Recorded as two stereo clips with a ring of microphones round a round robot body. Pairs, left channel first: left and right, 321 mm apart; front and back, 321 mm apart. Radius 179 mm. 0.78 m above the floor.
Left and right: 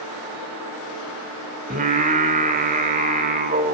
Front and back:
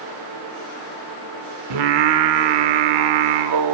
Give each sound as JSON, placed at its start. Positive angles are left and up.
{"t": 1.7, "sound": "singing", "azimuth_deg": -160, "distance_m": 1.4}